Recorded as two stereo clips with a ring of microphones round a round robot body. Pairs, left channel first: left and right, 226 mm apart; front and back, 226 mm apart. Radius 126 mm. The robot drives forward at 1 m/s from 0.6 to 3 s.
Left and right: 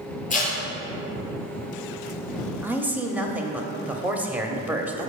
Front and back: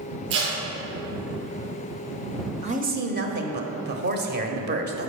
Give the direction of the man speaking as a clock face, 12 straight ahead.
5 o'clock.